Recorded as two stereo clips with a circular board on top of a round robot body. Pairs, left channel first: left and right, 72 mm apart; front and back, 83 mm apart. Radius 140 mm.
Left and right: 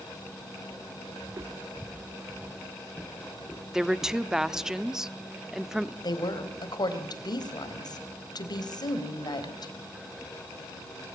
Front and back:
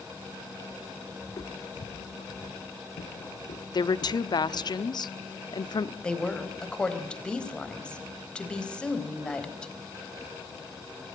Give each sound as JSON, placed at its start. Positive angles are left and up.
{"t": 1.2, "sound": "footsteps", "azimuth_deg": -50, "distance_m": 1.5}
{"t": 3.7, "sound": "a woman speaking", "azimuth_deg": -10, "distance_m": 1.3}
{"t": 6.0, "sound": "a woman speaking", "azimuth_deg": 80, "distance_m": 4.0}